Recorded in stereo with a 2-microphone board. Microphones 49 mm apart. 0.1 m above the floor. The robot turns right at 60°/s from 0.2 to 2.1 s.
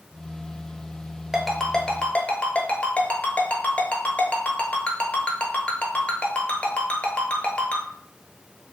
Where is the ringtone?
5° right (ahead or behind), 0.6 m; by 7.8 s 25° left (ahead or behind), 0.6 m.